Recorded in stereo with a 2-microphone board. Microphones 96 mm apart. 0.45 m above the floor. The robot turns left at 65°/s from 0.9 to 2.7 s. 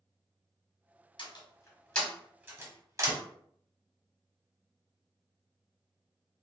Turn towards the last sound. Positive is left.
turn(degrees=-35)  # may be behind; listen again after turning